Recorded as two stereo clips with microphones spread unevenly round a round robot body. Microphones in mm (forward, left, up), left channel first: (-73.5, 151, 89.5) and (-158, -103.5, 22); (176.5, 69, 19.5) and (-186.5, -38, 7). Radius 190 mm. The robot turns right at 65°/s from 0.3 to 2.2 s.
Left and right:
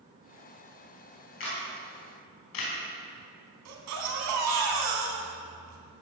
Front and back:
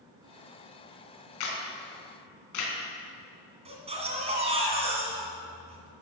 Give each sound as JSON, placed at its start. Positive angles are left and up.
{"t": 1.4, "sound": "a camera shutter", "azimuth_deg": 10, "distance_m": 4.0}
{"t": 3.6, "sound": "a baby crying", "azimuth_deg": -90, "distance_m": 2.5}